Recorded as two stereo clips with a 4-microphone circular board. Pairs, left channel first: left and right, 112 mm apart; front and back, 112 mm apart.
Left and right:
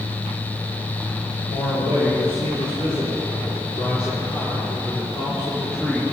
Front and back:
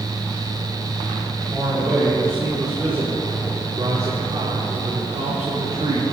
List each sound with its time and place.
1.5 s a man speaking: 90° left, 5.5 m; by 6.0 s 150° left, 6.5 m